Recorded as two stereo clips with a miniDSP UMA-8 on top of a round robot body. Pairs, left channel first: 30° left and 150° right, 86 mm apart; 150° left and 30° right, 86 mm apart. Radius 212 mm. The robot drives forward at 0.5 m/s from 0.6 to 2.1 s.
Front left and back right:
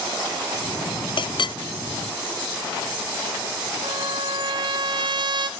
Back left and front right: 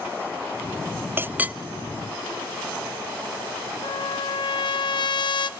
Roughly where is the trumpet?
Behind.